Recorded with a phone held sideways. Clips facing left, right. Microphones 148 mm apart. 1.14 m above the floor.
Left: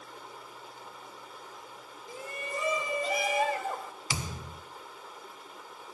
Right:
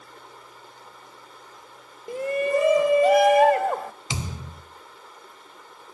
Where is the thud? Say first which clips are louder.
Right 1 dB; 25° right (ahead or behind), 1.3 m.